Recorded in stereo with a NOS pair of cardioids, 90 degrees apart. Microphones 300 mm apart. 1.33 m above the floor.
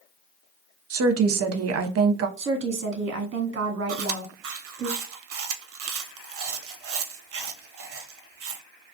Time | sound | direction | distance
0.9 | a woman speaking | 55° right | 0.6 m
2.4 | a woman speaking | 40° right | 0.8 m
3.9 | chewing | 50° right | 0.6 m